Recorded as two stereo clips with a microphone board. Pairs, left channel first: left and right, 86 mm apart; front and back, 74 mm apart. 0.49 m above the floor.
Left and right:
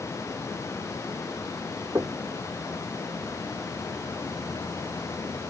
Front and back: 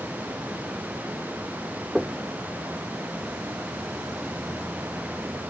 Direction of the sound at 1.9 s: 105° right.